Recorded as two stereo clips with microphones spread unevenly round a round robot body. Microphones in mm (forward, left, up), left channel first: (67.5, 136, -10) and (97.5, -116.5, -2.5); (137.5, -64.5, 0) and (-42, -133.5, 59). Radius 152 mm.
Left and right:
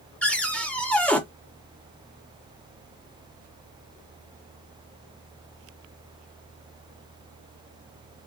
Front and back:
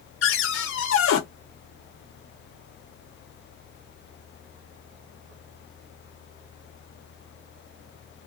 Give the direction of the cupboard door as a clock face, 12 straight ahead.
12 o'clock.